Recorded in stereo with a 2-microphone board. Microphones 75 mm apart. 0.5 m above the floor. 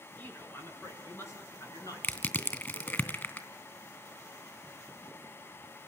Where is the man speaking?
25° left (ahead or behind), 6.5 m; by 3.0 s 65° left (ahead or behind), 7.5 m.